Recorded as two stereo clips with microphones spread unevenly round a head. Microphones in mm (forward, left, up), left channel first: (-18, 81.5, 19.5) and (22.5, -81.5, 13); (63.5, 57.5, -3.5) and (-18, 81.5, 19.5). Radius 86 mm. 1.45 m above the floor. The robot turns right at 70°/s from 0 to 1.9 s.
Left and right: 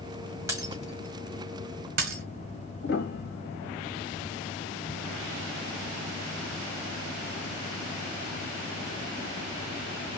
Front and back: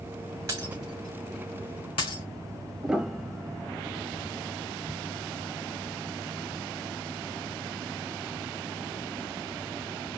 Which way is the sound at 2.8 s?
85° left.